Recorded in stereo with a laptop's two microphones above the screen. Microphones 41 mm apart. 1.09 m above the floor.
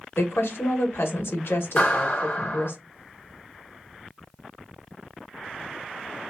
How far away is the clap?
About 1.4 m.